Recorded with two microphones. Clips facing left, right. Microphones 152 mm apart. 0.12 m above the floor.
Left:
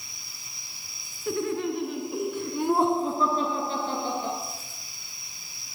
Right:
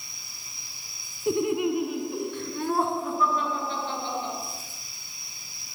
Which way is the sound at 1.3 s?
20° right (ahead or behind).